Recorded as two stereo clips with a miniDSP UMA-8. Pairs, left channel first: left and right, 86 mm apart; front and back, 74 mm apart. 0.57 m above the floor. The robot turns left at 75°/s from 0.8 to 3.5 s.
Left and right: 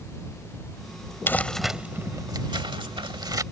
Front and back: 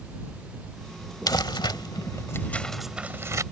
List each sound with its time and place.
1.3 s crumpling: 25° left; by 3.4 s 135° right